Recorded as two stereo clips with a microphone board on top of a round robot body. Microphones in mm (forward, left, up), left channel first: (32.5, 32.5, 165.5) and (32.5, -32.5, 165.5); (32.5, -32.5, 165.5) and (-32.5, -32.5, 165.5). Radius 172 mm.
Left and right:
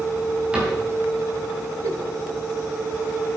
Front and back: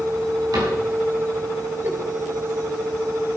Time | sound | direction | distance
0.5 | a cupboard door | 165° right | 4.5 m
1.8 | a giggle | 125° right | 2 m